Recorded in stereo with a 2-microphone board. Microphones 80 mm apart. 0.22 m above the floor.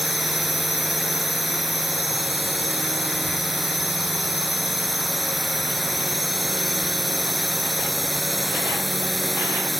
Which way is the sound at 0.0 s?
Centre (ahead or behind).